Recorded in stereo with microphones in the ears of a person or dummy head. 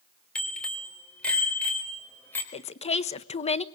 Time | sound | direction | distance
0.3 | a bicycle bell | 5° left (ahead or behind) | 3.5 m
2.5 | a woman speaking | 30° left (ahead or behind) | 0.6 m